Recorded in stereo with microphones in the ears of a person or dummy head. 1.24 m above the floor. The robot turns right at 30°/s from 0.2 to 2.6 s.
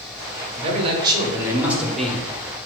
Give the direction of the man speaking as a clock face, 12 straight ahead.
1 o'clock.